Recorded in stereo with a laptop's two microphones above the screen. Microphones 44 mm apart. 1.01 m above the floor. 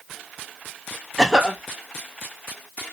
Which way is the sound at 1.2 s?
15° right (ahead or behind).